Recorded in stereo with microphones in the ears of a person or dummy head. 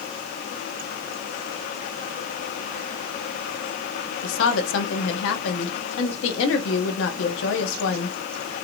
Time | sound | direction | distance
4.2 | a woman speaking | 85° left | 1.2 m